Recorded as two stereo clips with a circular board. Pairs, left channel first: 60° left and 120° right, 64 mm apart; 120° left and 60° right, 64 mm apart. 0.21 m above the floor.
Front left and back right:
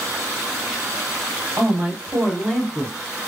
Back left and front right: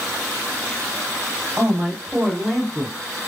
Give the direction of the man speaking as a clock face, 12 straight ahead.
3 o'clock.